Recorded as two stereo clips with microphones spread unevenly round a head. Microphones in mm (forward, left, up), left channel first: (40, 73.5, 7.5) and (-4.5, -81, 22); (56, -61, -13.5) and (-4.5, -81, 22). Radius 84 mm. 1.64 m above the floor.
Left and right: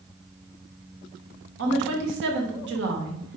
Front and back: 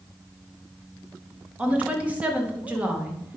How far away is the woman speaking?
About 2 m.